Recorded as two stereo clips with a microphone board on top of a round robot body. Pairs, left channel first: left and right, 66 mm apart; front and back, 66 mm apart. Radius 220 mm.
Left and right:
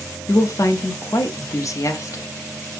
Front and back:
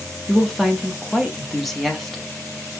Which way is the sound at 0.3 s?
90° left.